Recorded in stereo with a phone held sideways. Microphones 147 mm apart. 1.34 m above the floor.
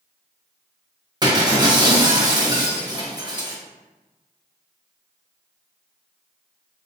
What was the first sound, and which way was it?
Breaking glass, 30° right (ahead or behind).